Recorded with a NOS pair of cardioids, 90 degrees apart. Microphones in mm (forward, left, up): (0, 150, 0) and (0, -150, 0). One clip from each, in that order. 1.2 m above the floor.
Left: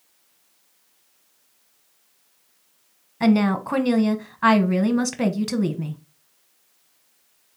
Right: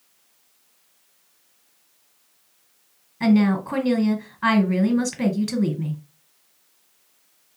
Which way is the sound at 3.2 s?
15° left.